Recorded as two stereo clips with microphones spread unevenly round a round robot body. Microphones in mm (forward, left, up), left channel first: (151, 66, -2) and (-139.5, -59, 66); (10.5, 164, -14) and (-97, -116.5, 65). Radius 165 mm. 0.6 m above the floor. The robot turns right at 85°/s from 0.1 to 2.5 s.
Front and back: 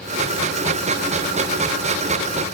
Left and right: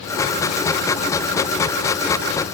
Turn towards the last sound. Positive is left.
No sound to turn to.